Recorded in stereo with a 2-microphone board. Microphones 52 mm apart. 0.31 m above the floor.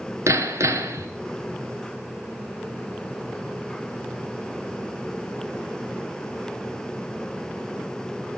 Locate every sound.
0.3 s hammering: 70° right (ahead or behind), 2.5 m